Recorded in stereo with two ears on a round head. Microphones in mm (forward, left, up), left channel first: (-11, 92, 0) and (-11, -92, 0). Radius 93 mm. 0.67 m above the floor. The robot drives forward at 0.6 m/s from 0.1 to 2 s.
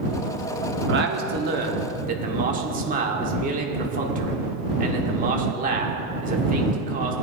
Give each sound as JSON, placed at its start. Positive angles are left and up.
{"t": 0.9, "sound": "a man speaking", "side_deg": -60, "distance_m": 1.2}